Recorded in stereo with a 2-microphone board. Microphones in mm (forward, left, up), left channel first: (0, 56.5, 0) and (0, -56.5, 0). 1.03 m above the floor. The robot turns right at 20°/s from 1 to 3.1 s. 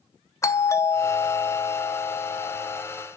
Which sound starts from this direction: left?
A doorbell, at 0.4 s.